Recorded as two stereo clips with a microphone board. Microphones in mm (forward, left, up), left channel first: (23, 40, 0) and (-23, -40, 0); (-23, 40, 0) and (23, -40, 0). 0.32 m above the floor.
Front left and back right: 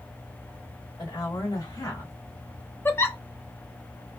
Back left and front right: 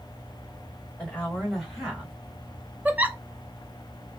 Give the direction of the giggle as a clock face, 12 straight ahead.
12 o'clock.